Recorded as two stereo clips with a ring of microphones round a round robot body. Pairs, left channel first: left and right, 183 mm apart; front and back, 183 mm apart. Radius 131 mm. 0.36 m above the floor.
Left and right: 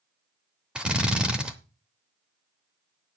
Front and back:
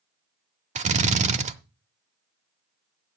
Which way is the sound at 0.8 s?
175° right.